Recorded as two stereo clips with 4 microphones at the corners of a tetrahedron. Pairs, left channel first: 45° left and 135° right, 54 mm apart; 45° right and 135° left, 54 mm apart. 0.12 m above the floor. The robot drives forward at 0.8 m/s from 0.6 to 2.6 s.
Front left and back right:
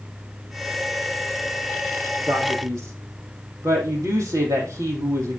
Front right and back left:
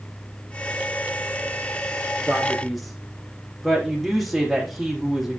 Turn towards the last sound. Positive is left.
turn(degrees=-135)